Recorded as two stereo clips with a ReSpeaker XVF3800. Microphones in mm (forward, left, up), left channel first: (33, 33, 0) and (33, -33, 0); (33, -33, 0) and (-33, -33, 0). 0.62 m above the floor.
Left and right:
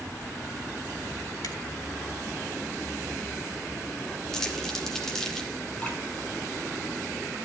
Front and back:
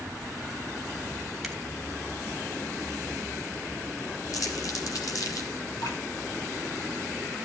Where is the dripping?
15° left, 7.5 m.